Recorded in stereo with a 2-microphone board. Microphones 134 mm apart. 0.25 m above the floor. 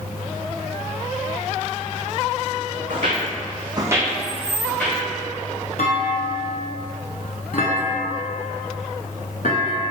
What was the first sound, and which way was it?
Footsteps, 70° right (ahead or behind).